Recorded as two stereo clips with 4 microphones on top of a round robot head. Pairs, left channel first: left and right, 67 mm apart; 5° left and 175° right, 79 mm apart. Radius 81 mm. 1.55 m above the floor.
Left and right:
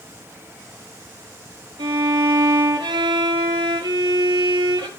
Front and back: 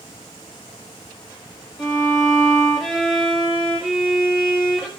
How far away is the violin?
About 2 m.